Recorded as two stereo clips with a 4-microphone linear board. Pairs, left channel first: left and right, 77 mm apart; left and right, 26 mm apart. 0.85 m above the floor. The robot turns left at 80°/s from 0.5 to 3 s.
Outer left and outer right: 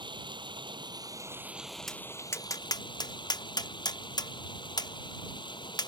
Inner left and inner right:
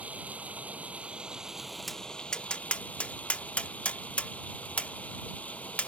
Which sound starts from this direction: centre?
Tapping, at 1.9 s.